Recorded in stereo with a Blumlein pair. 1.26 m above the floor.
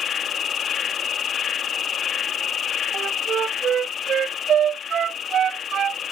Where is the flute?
25° right.